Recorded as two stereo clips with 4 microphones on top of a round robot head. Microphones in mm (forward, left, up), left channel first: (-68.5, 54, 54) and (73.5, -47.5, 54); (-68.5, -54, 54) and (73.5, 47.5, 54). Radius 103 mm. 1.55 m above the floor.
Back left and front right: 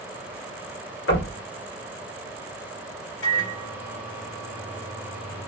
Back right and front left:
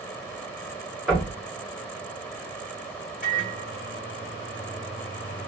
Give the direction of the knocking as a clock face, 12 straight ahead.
8 o'clock.